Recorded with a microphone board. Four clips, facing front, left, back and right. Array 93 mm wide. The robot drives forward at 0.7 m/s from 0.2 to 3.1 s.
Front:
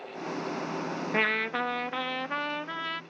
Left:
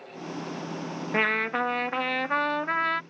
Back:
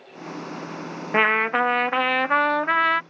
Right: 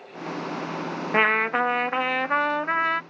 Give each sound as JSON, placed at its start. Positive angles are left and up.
{"t": 1.1, "sound": "a trumpet", "azimuth_deg": -140}